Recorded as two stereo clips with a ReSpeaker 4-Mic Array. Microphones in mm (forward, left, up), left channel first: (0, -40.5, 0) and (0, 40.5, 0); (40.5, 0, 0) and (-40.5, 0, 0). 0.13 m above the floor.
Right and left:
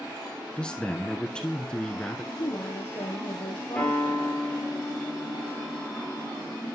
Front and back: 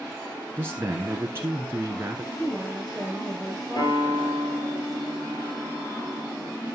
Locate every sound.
0.6 s a man speaking: 160° right, 1.3 m
2.3 s a woman speaking: 80° right, 2.5 m
3.8 s a piano: 15° right, 4 m